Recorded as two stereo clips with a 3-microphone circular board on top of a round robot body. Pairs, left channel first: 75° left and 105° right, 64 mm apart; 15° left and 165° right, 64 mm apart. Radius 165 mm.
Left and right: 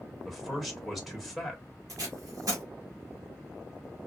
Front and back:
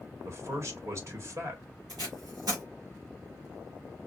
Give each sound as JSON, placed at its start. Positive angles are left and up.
{"t": 0.2, "sound": "a man speaking", "azimuth_deg": 165, "distance_m": 1.4}
{"t": 1.9, "sound": "tape being pulled", "azimuth_deg": -140, "distance_m": 1.0}